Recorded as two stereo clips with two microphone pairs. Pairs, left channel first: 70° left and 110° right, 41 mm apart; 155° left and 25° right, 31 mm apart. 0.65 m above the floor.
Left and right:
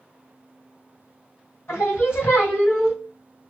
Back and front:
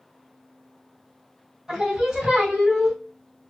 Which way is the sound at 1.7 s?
50° left.